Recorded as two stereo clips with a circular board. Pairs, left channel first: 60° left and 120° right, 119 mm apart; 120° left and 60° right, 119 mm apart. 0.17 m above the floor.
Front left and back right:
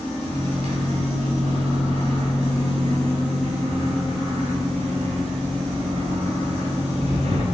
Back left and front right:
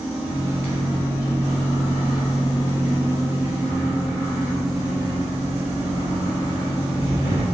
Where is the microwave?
130° right, 1.8 m.